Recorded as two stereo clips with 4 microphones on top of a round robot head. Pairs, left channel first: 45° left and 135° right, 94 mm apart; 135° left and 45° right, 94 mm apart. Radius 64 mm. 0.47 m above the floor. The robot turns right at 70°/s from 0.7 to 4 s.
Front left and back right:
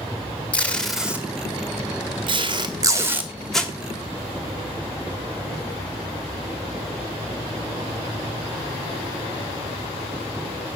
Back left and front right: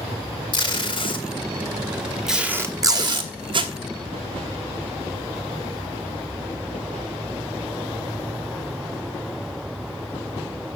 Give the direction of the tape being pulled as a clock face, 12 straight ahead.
8 o'clock.